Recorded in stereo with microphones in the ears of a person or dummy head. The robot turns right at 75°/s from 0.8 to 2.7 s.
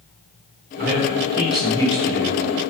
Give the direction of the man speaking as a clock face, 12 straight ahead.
2 o'clock.